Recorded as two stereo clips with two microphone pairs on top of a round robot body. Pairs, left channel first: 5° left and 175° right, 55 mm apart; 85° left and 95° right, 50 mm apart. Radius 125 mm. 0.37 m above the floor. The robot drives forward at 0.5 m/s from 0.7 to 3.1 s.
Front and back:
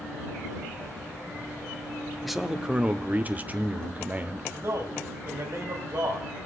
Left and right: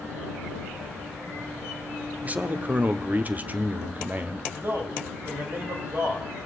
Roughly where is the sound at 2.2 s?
Ahead right.